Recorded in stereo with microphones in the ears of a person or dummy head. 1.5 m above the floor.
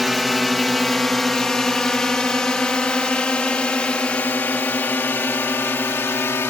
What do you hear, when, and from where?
0.0 s a drone: centre (ahead or behind); by 6.5 s 10° left (ahead or behind)